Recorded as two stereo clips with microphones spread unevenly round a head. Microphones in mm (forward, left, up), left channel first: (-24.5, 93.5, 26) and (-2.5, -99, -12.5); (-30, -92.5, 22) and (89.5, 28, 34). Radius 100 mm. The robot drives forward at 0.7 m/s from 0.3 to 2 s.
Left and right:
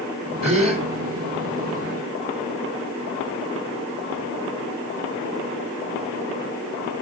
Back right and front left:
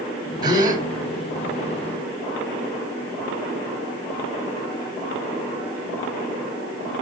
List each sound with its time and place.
0.4 s a gasp: 20° right, 4 m; by 0.8 s 25° right, 3.5 m